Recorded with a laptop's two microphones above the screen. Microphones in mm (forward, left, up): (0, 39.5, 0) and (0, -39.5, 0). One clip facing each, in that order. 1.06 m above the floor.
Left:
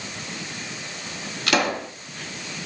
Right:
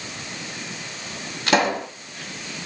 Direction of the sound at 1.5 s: 30° right (ahead or behind).